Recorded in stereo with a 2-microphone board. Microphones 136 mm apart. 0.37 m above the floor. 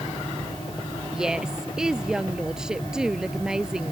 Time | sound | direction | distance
1.1 | a woman speaking | 5° right (ahead or behind) | ?